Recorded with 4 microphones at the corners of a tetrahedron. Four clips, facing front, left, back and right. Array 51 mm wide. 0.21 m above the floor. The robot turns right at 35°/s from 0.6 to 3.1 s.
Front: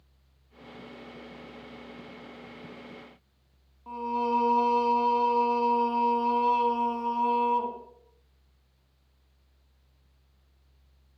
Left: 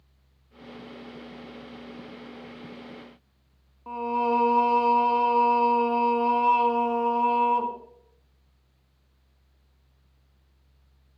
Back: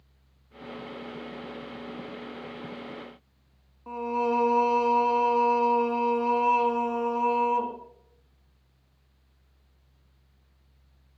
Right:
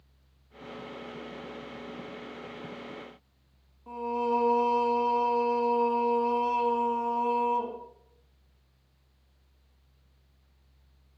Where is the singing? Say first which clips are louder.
Left 4 dB, back 1 dB; 115° left, 1.7 m.